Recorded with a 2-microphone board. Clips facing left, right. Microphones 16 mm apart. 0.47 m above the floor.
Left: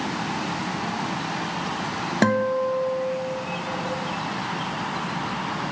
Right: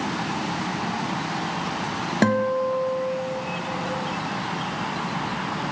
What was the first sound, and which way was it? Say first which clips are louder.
A guitar: even; 5° left (ahead or behind).